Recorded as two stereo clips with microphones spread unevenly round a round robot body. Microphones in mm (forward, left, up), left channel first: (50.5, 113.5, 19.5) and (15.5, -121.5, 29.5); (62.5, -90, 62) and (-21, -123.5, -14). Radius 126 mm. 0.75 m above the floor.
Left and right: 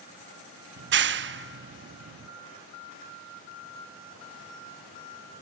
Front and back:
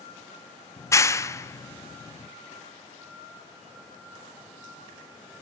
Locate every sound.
0.8 s a clap: 60° right, 1.1 m